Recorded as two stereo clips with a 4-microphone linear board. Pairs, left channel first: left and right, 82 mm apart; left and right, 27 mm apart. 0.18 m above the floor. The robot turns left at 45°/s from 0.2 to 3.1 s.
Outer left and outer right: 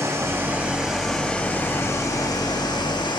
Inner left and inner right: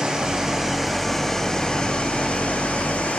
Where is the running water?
140° right, 5 m; by 3.2 s 90° left, 5 m.